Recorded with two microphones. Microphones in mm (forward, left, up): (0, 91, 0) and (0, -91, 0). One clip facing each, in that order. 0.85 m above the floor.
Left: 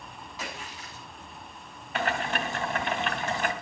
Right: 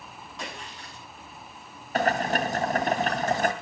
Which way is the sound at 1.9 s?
40° right (ahead or behind).